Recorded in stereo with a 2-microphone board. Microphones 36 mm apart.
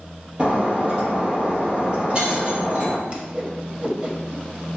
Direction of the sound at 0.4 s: 25° right (ahead or behind).